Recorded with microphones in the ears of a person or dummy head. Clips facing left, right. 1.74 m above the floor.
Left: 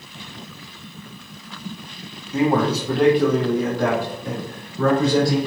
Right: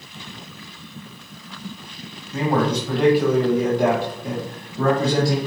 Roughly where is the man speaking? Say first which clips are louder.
Left 2 dB; centre.